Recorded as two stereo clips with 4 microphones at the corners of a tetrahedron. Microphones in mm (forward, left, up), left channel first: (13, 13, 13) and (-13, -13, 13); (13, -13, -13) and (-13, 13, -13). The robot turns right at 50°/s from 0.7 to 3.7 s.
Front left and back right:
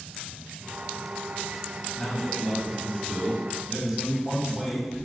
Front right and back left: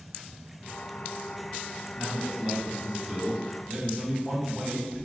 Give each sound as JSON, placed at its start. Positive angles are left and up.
{"t": 1.9, "sound": "a man speaking", "azimuth_deg": 115, "distance_m": 1.2}